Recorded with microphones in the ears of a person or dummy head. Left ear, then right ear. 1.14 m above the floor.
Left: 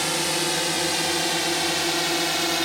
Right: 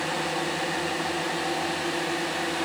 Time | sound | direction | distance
0.0 | a drone | 75° left (ahead or behind) | ?